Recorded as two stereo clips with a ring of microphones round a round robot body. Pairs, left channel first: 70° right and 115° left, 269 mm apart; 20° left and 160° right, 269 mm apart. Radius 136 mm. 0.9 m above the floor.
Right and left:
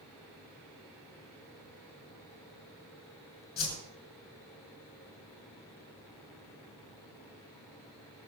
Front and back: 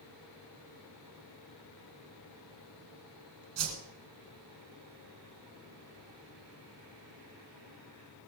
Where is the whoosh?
125° right, 4.5 m.